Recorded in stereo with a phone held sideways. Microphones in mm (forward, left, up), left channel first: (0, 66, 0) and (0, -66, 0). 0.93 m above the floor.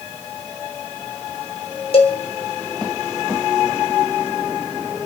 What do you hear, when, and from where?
1.9 s a cowbell: 50° left (ahead or behind), 1.4 m